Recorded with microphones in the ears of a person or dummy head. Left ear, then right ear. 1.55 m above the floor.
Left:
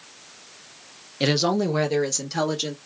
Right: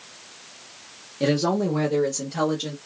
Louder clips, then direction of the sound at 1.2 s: Left 1 dB; 40° left (ahead or behind).